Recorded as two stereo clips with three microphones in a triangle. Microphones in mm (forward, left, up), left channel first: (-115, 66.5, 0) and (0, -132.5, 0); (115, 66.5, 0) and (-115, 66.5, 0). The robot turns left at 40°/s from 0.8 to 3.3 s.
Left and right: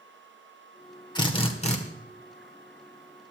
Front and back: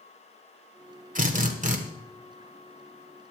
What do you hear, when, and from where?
1.1 s a drill: straight behind, 1.6 m; by 1.8 s 155° left, 1.6 m